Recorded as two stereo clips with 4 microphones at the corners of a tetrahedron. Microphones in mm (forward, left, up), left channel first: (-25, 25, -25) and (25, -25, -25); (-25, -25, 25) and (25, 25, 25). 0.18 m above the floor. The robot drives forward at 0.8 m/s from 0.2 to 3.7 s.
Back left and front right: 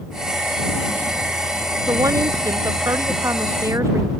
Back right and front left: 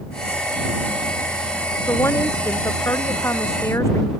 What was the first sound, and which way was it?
A woman speaking, 85° right.